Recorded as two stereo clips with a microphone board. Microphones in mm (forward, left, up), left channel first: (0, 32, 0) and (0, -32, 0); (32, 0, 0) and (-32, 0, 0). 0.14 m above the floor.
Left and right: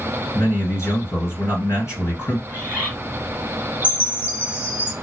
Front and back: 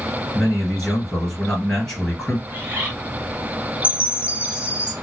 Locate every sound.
0.3 s a man speaking: 75° left, 2.5 m
2.5 s a bird: 135° right, 1.7 m
3.8 s a chime: 125° left, 0.7 m